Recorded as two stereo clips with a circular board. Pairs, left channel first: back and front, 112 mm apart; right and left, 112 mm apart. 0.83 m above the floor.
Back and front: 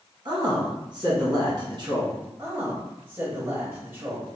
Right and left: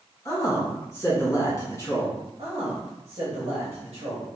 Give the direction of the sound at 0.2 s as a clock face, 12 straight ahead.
1 o'clock.